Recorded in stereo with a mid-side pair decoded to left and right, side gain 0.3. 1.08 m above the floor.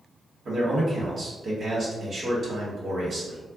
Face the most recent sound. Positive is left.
turn(degrees=-60)